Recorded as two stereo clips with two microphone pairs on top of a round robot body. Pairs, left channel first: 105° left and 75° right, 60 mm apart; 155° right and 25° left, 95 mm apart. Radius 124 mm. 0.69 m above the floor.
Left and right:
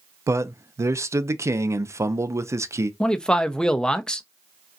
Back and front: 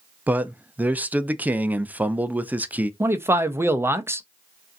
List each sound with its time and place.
0.3 s a man speaking: 45° right, 0.6 m
3.0 s a man speaking: 60° left, 0.8 m